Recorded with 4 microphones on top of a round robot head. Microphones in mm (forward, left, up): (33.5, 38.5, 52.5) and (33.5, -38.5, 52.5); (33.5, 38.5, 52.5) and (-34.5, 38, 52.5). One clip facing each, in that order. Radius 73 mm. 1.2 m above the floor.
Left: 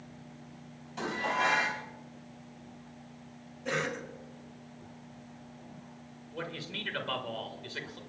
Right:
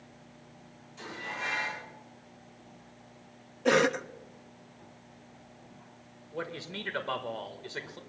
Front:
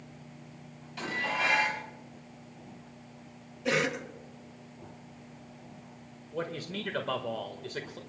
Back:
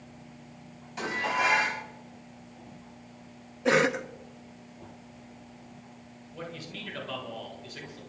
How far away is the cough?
About 0.7 m.